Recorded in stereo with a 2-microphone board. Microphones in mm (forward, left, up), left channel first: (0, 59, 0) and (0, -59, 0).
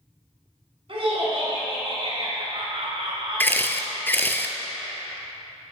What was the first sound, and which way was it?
Laughter, 50° right (ahead or behind).